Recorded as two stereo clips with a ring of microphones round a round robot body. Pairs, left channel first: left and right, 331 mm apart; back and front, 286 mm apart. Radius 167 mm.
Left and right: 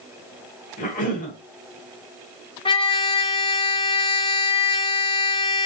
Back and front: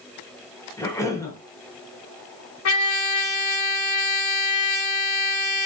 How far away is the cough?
About 1.1 m.